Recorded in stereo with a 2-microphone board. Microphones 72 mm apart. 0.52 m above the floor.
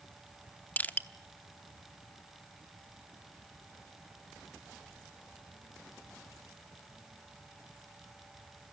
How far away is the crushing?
About 0.8 m.